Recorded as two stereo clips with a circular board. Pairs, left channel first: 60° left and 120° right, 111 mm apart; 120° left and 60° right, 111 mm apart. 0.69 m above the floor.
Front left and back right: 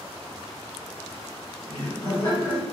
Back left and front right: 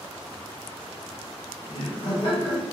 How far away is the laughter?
About 1.4 m.